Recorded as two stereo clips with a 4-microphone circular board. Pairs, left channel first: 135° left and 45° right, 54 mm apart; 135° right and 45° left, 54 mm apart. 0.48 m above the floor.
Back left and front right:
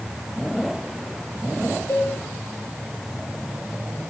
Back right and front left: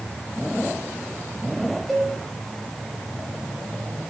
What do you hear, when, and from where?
1.9 s a cowbell: 135° left, 5.5 m